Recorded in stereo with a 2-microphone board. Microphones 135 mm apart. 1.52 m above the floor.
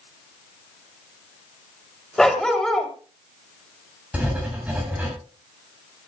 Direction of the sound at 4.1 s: 10° right (ahead or behind).